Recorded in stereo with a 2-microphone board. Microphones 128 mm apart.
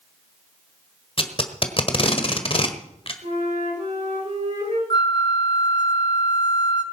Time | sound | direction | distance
1.2 | tape being pulled | 45° left (ahead or behind) | 1.3 m
3.2 | a flute | 70° right (ahead or behind) | 6.5 m
4.9 | a flute | 35° left (ahead or behind) | 1.4 m